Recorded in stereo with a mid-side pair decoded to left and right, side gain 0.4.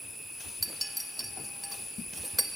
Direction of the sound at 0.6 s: Straight ahead.